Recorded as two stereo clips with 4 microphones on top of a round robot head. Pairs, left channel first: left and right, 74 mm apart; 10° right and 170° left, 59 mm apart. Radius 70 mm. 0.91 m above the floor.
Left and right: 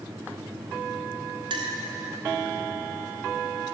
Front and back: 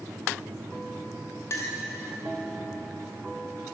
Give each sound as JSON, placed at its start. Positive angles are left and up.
{"t": 1.5, "sound": "a clink", "azimuth_deg": -60, "distance_m": 1.4}